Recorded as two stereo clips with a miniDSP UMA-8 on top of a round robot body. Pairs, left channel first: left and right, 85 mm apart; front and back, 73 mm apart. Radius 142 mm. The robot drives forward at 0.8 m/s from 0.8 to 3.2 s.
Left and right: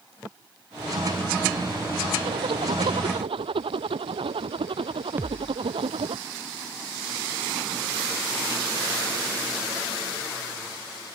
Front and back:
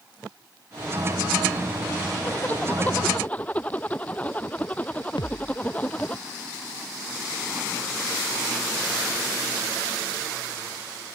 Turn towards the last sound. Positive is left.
turn(degrees=-25)